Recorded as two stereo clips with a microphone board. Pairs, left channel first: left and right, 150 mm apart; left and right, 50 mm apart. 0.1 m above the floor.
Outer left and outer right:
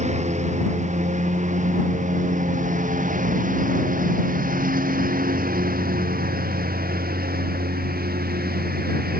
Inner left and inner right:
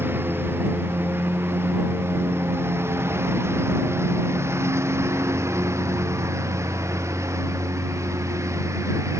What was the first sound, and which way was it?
A lawn mower, 50° right (ahead or behind).